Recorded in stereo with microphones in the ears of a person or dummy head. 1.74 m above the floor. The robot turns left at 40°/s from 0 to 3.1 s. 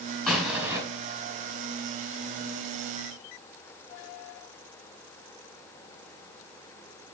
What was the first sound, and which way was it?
An explosion, 5° left (ahead or behind).